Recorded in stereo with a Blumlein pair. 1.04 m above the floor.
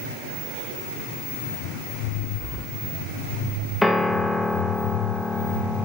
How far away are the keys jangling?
About 1.5 m.